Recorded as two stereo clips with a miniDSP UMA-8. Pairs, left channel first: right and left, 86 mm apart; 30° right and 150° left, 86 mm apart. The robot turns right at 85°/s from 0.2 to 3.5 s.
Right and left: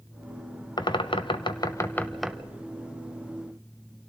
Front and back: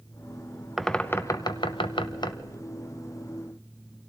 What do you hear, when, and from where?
0.8 s a bird: 125° right, 0.8 m; by 2.4 s 15° left, 0.8 m